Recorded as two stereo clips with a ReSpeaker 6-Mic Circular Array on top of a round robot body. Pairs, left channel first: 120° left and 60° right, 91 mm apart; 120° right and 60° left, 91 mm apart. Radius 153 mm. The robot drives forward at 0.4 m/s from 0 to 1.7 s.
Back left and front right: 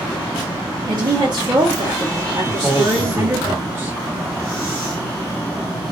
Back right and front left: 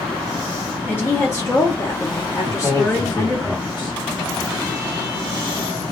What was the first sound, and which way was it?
A woman speaking, 55° right.